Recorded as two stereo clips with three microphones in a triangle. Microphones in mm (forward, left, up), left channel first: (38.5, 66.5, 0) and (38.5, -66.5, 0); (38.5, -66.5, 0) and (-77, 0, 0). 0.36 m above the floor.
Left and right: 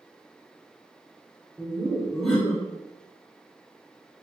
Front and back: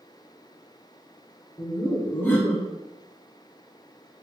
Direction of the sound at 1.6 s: 5° left.